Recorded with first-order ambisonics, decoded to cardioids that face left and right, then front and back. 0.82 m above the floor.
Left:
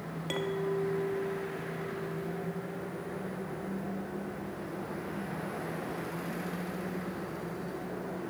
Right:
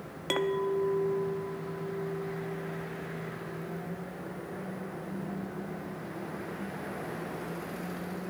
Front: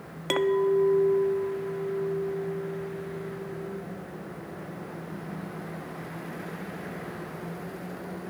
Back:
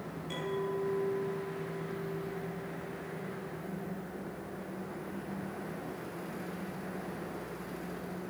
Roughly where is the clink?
Ahead right.